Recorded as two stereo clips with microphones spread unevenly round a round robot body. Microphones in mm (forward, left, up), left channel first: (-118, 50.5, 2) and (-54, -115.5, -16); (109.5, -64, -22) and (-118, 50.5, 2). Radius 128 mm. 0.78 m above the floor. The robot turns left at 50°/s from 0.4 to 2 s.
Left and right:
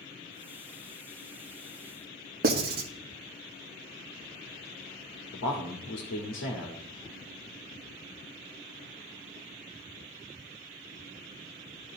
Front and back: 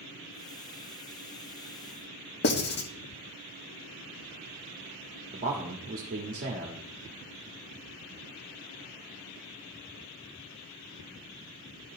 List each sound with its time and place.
2.4 s writing: 65° right, 1.2 m
5.3 s a man speaking: 90° left, 1.3 m